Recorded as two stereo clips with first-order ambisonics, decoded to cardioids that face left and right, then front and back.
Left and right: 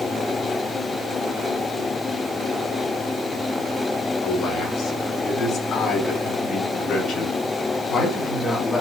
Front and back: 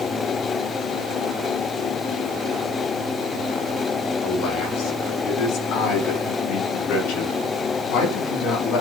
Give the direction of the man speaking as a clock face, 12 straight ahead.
11 o'clock.